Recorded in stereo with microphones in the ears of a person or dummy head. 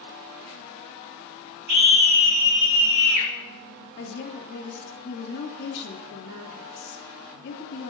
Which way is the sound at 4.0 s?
65° left (ahead or behind).